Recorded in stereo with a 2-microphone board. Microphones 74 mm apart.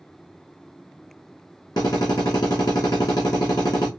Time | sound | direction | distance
1.8 | a drill | 65° left (ahead or behind) | 3 m